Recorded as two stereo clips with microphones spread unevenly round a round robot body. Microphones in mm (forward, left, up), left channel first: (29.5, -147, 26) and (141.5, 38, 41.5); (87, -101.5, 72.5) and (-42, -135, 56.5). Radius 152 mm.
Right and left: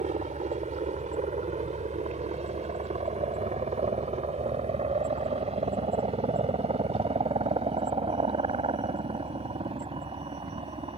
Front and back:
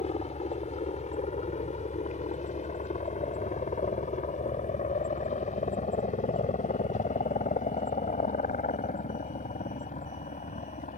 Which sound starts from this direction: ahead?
A helicopter, at 0.0 s.